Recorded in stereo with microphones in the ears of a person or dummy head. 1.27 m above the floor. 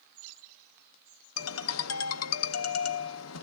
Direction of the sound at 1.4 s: 80° left.